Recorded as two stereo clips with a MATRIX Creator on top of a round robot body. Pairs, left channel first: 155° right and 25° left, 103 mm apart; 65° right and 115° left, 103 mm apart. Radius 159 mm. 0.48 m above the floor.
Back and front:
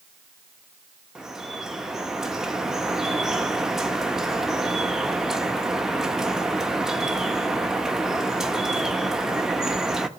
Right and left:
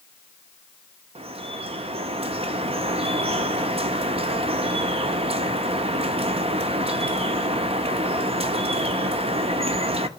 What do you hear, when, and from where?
1.1 s dripping: 105° left, 1.1 m